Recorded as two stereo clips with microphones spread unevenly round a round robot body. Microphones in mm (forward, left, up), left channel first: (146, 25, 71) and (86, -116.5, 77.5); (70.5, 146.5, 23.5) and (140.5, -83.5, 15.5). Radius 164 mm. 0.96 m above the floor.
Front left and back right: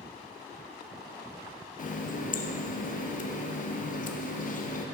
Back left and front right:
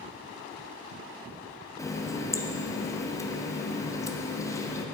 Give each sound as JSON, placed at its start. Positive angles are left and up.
{"t": 1.8, "sound": "a running tap", "azimuth_deg": 30, "distance_m": 0.7}